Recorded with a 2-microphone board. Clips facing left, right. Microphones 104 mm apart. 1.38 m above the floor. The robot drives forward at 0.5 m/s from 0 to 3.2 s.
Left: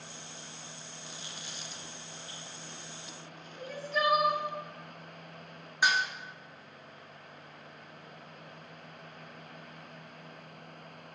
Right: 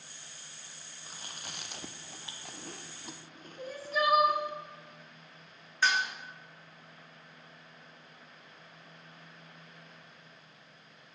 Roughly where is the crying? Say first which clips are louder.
Even; centre.